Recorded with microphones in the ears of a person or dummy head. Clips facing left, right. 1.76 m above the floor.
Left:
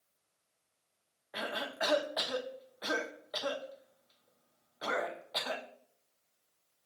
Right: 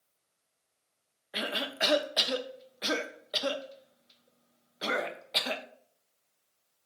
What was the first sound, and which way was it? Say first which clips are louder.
A cough: right 3 dB; 35° right (ahead or behind).